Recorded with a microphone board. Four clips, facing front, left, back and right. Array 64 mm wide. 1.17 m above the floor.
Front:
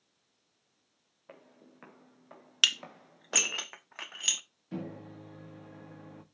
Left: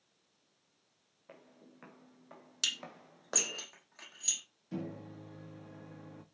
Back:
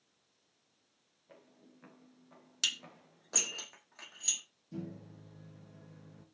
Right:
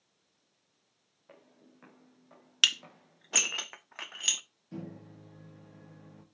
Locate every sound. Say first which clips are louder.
1.3 s footsteps: left 1 dB, front 5 dB; 5° left, 3.5 m; by 3.6 s 50° left, 2.5 m
2.6 s dishes clattering: right 10 dB, front 9 dB; 45° right, 1.1 m
4.7 s a microwave: left 2 dB, front 5 dB; 15° left, 1.9 m